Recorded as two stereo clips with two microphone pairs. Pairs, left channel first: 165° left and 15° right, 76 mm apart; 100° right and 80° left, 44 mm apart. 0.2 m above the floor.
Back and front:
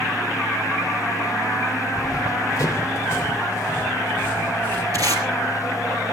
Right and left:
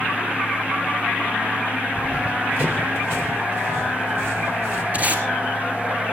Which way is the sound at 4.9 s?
25° left.